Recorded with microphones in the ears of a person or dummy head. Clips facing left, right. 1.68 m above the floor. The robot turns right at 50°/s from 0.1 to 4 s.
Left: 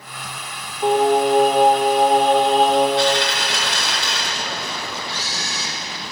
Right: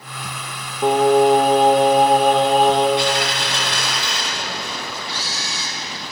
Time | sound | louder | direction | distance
0.8 | singing | right 2 dB | 120° right | 1.8 m
3.0 | a dropped coin | left 2 dB | 15° right | 3 m
5.1 | a camera shutter | even | 25° right (ahead or behind) | 2.5 m